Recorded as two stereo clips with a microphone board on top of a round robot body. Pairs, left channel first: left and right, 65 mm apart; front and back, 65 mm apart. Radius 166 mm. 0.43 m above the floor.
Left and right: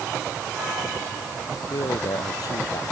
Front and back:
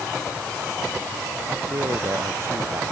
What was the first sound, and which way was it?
A man speaking, 125° left.